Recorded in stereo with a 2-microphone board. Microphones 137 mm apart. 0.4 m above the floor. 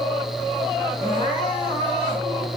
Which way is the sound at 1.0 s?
50° left (ahead or behind).